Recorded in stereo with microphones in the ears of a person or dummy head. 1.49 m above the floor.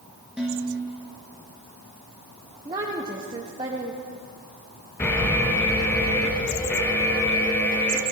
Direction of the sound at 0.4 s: Centre (ahead or behind).